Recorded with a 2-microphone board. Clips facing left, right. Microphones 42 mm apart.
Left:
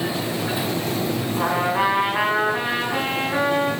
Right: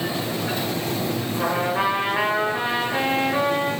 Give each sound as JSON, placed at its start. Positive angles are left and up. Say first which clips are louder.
{"t": 1.4, "sound": "a trumpet", "louder": "left 2 dB", "side_deg": 25, "distance_m": 2.0}